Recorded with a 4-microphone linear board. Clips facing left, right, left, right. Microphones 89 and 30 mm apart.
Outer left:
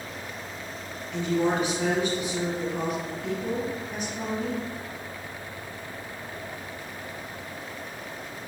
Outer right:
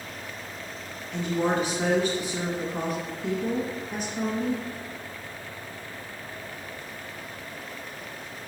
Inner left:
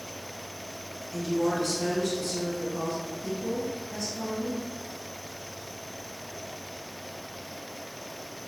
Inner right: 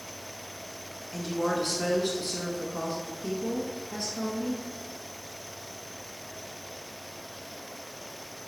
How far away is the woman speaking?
About 1.4 m.